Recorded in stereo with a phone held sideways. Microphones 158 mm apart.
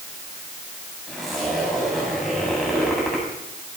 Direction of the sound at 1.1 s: Centre (ahead or behind).